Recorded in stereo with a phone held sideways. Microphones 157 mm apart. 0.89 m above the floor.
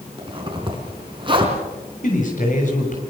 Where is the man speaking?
55° left (ahead or behind), 6 m.